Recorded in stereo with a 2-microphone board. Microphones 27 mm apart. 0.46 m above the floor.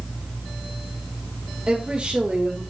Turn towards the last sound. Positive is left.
turn(degrees=-45)  # may be behind; listen again after turning